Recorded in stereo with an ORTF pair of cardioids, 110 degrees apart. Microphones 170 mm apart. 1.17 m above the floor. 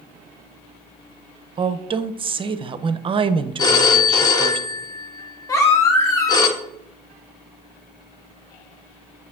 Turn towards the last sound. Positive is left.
turn(degrees=15)